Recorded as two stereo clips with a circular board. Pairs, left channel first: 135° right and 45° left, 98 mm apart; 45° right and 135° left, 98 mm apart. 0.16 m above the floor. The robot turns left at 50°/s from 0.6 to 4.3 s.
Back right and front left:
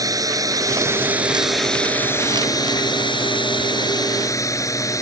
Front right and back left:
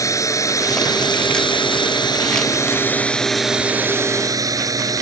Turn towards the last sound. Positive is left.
turn(degrees=175)